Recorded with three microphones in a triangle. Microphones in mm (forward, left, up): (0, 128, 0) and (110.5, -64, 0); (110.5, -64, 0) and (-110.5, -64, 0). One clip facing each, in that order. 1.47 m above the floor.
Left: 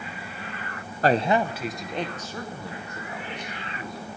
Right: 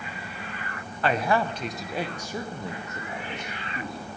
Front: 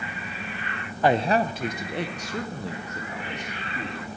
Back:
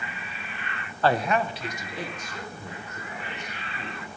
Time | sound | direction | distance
1.0 | a man speaking | 75° left | 0.5 m